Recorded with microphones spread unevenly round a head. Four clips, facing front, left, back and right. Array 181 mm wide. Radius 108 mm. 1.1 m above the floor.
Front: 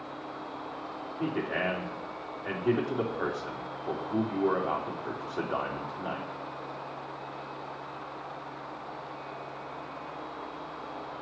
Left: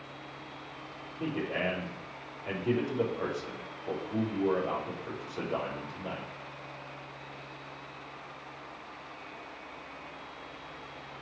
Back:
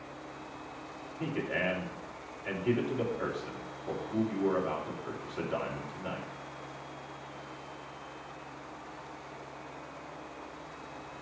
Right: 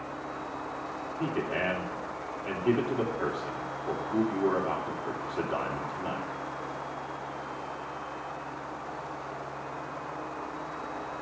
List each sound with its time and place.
1.2 s a man speaking: 25° right, 3.5 m